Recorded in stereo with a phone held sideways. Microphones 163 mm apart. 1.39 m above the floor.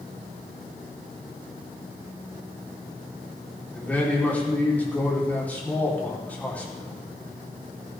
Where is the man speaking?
10° left (ahead or behind), 4.5 m.